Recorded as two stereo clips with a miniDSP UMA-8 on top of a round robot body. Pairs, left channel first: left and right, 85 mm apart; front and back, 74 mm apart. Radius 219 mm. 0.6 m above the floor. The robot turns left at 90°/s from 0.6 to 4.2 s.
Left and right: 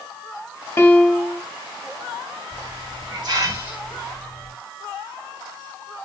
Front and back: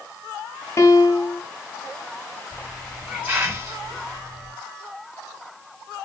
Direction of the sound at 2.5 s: 50° right.